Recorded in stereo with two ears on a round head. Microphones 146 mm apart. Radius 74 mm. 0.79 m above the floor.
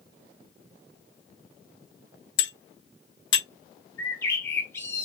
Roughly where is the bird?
Centre.